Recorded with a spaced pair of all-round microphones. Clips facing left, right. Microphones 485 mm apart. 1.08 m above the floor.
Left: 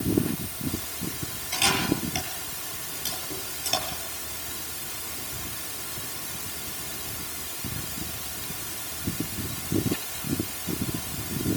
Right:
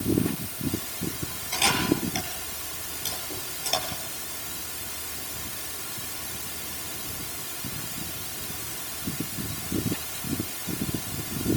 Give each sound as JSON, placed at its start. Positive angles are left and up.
{"t": 1.5, "sound": "a camera shutter", "side_deg": 30, "distance_m": 9.5}